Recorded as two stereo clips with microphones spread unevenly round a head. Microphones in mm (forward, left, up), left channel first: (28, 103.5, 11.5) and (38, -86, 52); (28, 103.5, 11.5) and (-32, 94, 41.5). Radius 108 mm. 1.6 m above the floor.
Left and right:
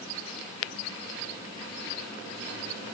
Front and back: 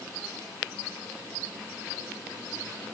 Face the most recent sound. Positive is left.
No sound to turn to.